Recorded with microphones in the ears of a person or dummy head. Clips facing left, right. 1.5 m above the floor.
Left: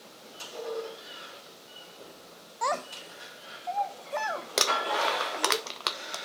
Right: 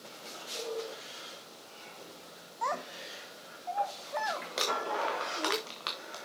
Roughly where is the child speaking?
Left.